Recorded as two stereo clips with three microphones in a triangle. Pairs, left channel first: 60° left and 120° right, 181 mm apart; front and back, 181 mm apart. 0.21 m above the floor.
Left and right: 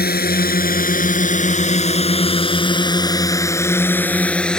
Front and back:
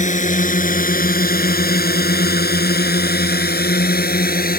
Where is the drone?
40° left; by 4.6 s 25° right.